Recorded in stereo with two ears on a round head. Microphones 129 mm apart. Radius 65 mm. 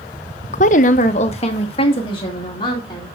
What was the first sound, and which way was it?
A woman speaking, 50° left (ahead or behind).